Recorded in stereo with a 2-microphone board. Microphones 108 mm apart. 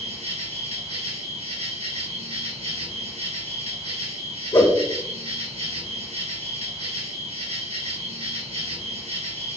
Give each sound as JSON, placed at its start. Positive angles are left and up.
{"t": 0.0, "sound": "an insect", "side_deg": -75, "distance_m": 1.2}
{"t": 4.5, "sound": "a whoosh", "side_deg": 40, "distance_m": 0.9}